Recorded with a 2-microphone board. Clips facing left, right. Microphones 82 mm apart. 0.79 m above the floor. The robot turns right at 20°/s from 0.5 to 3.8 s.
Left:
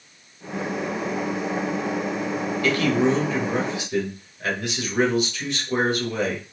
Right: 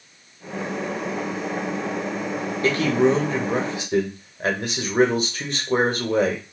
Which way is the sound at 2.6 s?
30° right (ahead or behind).